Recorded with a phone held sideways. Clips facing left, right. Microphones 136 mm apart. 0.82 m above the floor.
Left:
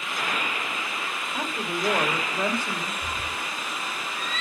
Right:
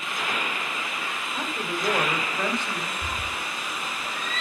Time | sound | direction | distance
1.3 | a woman speaking | 10° left (ahead or behind) | 3 m
3.0 | a cat meowing | 70° right (ahead or behind) | 3 m